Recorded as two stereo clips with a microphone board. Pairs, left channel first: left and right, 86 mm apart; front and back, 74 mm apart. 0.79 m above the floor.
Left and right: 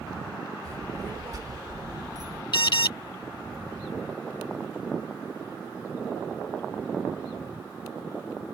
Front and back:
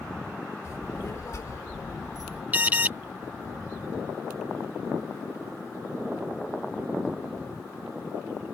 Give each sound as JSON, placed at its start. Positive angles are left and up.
{"t": 0.7, "sound": "a child speaking", "azimuth_deg": -45}
{"t": 2.5, "sound": "an alarm", "azimuth_deg": 115}